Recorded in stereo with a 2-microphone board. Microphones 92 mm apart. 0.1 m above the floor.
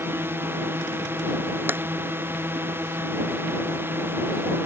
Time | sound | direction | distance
0.0 | a drone | 25° right (ahead or behind) | ?
1.7 | tapping | 25° right (ahead or behind) | ?